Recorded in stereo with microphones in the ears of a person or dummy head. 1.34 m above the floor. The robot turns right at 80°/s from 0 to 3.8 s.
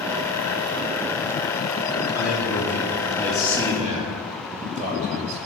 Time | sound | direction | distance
2.1 | a man speaking | 85° left | 2.5 m